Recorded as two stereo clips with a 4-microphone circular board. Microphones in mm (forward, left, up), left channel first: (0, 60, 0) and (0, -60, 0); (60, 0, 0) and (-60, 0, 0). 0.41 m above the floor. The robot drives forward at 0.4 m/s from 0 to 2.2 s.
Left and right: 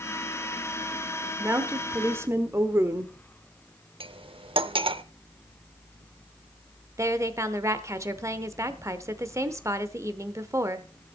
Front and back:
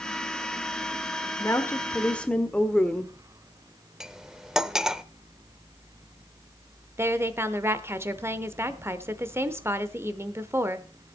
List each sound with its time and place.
1.4 s a woman speaking: 40° right, 1.2 m; by 3.1 s 65° right, 1.2 m
4.0 s cutlery clinking: 95° right, 0.6 m
7.0 s a woman speaking: 130° right, 0.9 m